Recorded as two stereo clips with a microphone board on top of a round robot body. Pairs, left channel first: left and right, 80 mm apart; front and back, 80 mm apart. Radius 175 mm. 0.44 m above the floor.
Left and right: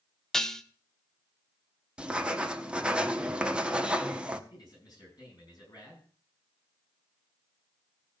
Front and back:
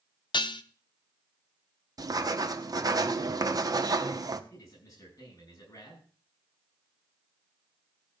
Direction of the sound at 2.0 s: 165° right.